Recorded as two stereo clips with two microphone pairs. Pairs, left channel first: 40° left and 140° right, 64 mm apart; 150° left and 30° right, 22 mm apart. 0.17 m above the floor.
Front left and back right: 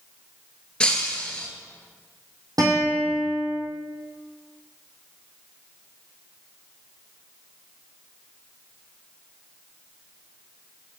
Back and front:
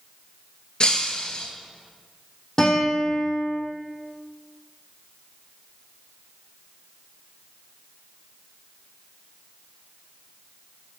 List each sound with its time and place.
0.8 s breaking glass: 115° left, 0.7 m
2.6 s a guitar: 150° right, 2.5 m